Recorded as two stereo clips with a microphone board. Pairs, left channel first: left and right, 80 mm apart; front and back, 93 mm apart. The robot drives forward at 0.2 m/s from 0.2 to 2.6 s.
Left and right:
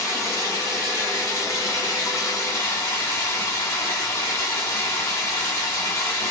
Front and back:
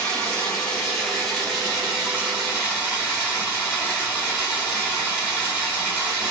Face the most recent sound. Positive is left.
turn(degrees=105)